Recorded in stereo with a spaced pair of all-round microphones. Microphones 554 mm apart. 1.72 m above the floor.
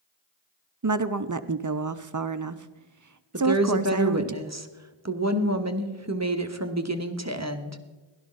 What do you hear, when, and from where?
0.8 s a woman speaking: 35° right (ahead or behind), 0.5 m
3.3 s a woman speaking: 30° right (ahead or behind), 1.0 m